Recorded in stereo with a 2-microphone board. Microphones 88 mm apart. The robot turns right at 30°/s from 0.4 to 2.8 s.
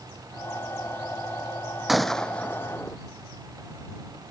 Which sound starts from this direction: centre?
A gunshot, at 1.9 s.